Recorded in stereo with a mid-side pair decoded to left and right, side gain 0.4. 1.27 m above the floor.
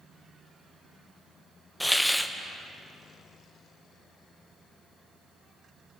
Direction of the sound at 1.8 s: 5° left.